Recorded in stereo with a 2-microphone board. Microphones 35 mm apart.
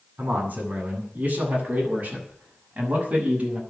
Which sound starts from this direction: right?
A man speaking, at 0.2 s.